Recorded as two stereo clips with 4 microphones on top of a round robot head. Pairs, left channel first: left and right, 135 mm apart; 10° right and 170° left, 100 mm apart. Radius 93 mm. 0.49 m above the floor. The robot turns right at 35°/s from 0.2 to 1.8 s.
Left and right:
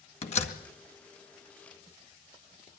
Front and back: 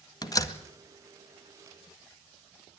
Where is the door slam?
40° left, 2.0 m; by 0.6 s 55° left, 2.0 m.